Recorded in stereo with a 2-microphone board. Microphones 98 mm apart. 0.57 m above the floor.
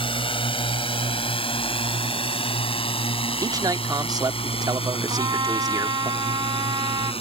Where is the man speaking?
40° right (ahead or behind).